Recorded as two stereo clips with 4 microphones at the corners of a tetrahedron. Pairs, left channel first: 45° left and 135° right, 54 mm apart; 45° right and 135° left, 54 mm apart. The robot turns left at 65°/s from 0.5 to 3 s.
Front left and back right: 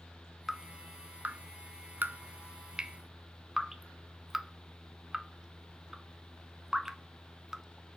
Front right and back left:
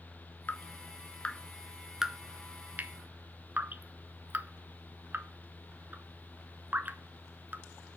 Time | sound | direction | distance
0.5 | dripping | 50° right | 0.6 m